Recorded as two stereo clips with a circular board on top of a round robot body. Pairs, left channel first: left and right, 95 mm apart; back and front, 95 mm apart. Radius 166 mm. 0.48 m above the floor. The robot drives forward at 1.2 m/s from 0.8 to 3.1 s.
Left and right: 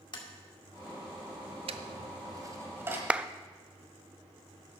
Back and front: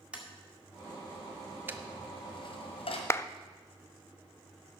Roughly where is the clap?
Behind right.